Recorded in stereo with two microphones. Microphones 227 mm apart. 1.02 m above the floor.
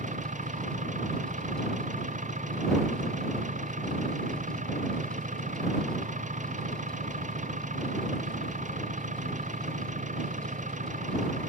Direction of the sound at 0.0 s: 35° right (ahead or behind).